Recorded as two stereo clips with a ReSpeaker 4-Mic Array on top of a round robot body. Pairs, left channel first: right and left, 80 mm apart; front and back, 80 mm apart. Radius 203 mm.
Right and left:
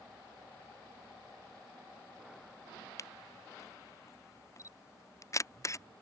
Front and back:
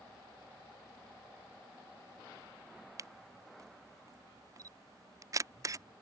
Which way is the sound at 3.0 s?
135° right.